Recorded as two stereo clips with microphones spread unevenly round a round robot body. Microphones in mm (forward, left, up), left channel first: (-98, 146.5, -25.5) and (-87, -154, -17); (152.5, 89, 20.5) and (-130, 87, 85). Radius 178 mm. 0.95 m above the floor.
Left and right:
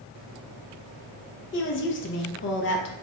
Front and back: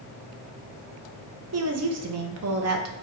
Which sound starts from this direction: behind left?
A woman speaking, at 1.5 s.